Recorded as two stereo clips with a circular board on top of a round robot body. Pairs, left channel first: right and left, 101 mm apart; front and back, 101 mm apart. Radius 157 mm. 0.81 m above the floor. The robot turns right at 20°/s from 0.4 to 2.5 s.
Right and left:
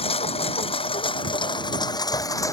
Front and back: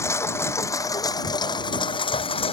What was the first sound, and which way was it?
A lawn mower, 65° right.